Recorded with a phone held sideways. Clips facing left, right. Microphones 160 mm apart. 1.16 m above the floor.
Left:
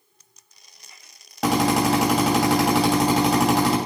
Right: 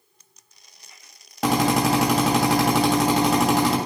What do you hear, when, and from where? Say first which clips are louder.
1.4 s a drill: even; centre (ahead or behind), 2.5 m